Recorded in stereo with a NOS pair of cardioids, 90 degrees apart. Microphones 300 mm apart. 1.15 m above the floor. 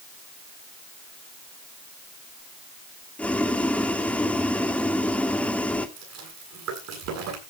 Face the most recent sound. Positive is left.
turn(degrees=-70)